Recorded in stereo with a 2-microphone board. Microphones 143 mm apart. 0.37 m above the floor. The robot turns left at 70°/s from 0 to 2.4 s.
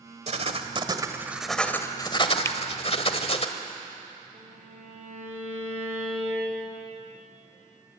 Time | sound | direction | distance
0.3 | writing | 95° right | 1.5 m
2.5 | a finger snap | 20° left (ahead or behind) | 0.9 m
4.3 | a violin | 55° right (ahead or behind) | 7.5 m